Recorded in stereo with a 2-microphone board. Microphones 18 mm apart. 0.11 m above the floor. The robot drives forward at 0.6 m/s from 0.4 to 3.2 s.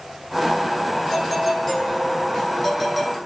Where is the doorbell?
5° left (ahead or behind), 7 m.